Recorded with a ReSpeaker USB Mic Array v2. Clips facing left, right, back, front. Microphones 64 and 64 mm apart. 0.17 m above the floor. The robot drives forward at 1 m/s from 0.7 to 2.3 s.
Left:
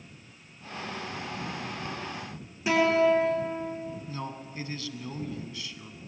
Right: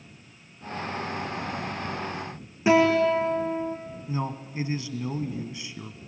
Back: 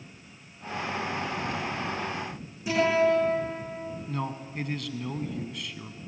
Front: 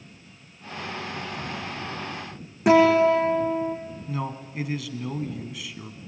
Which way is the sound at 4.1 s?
80° right.